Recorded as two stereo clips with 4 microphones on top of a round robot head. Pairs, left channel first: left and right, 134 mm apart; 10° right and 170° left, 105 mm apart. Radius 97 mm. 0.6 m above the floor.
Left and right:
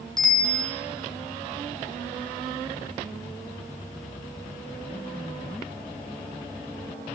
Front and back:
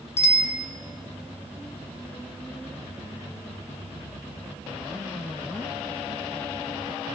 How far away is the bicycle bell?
About 4 m.